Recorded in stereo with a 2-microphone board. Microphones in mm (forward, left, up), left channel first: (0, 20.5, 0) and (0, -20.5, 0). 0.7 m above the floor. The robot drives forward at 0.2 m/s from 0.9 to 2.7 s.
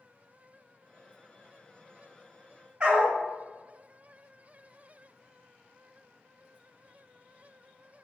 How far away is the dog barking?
About 1.4 m.